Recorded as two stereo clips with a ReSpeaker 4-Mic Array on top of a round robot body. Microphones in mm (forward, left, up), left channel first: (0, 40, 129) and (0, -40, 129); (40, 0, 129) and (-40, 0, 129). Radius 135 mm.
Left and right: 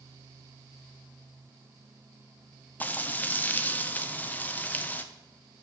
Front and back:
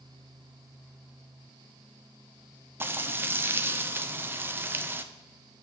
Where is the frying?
140° left, 0.7 m.